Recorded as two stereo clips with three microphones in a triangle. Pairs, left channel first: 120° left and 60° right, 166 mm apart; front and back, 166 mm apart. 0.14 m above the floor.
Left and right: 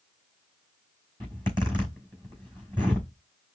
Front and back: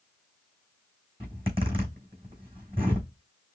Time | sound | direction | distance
1.2 | a zipper | 125° right | 3.5 m